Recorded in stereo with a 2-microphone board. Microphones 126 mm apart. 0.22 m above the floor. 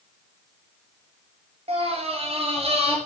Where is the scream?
55° right (ahead or behind), 3 m.